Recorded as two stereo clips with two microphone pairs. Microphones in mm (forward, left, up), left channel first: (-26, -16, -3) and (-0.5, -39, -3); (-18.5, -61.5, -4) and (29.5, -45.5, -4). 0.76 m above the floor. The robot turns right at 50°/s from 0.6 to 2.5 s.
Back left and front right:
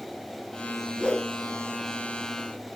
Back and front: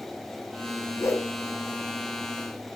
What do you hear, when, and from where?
1.0 s a whoosh: 165° right, 0.5 m; by 1.3 s 150° right, 0.5 m